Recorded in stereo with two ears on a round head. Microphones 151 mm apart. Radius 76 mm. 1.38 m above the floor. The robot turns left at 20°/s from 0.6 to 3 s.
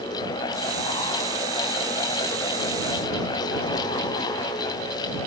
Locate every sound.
Only background noise.